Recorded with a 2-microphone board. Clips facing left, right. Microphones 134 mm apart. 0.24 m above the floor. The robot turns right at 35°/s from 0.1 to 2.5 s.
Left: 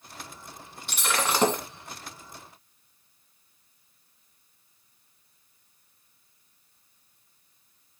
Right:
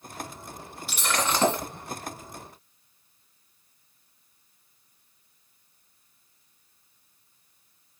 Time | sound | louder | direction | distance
0.9 | breaking glass | even | 5° right (ahead or behind) | 1.5 m